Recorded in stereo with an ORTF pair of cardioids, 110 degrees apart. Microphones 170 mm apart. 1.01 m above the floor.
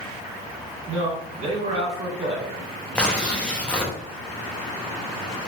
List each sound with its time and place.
0.9 s a man speaking: 40° right, 1.7 m
3.0 s tearing paper: 5° left, 0.8 m